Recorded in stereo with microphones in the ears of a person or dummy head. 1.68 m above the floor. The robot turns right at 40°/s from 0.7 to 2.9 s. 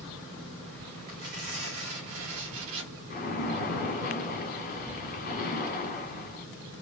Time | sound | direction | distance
1.1 | tearing paper | 135° right | 1.9 m
3.1 | a splash | 45° left (ahead or behind) | 1.9 m